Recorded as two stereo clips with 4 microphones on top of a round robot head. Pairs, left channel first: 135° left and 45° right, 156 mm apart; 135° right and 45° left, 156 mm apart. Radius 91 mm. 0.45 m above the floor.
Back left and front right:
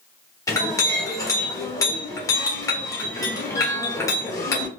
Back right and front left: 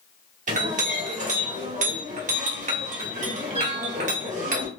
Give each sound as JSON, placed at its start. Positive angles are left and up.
{"t": 0.5, "sound": "a clink", "azimuth_deg": 70, "distance_m": 1.2}